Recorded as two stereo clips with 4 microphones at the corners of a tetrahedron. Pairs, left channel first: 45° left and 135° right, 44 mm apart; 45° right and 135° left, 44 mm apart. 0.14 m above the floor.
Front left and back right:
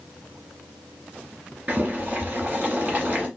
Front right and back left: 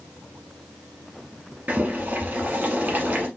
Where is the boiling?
175° left, 2.5 m.